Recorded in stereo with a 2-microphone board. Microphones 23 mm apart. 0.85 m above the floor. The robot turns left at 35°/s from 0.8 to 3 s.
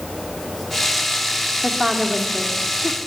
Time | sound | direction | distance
1.6 | a woman speaking | 155° right | 2.5 m